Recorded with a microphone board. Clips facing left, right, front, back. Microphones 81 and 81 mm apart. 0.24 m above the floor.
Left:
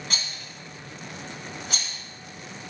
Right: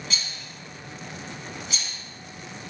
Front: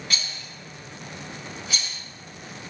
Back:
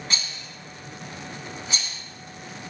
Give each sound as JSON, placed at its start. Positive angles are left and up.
{"t": 0.1, "sound": "a rattle", "azimuth_deg": 120, "distance_m": 0.8}